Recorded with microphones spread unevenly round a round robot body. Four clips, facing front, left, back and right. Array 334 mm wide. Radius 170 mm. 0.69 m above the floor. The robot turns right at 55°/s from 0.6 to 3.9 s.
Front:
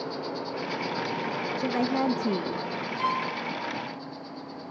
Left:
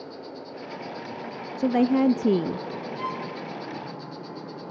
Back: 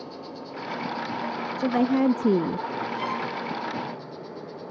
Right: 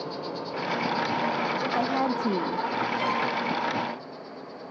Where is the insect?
50° right, 1.7 m; by 4.7 s 130° left, 1.7 m.